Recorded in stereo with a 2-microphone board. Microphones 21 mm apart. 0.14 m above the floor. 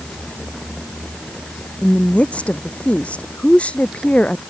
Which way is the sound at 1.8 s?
80° left.